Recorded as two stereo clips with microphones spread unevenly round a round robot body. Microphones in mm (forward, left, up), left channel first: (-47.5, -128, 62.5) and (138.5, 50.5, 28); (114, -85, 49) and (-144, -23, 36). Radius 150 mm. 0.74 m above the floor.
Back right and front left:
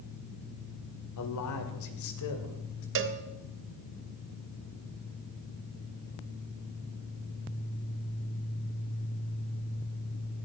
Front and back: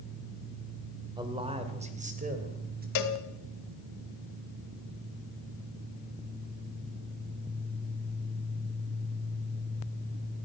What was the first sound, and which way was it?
A man speaking, 120° right.